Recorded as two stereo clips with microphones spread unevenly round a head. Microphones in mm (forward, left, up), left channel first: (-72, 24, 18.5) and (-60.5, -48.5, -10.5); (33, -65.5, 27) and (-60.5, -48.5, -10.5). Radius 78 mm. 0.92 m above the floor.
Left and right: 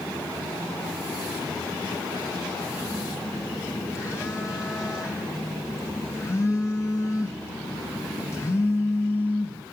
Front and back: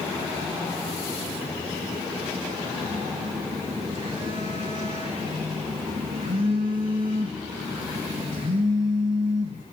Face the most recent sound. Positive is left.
turn(degrees=140)